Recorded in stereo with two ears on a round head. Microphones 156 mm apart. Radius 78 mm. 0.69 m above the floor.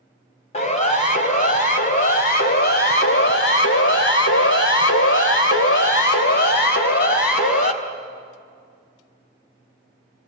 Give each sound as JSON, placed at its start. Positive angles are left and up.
{"t": 0.5, "sound": "a siren", "side_deg": 40, "distance_m": 3.5}